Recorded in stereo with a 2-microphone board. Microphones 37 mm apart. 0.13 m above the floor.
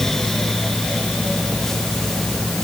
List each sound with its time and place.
Only background noise.